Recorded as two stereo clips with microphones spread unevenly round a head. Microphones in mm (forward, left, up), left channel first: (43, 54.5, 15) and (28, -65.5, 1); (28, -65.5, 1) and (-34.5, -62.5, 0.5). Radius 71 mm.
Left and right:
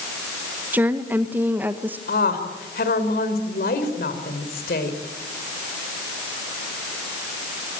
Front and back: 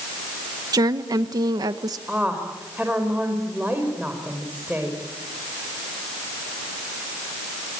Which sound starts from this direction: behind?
A woman speaking, at 0.7 s.